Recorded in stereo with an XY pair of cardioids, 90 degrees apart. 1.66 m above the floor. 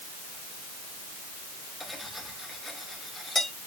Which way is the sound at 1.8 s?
10° left.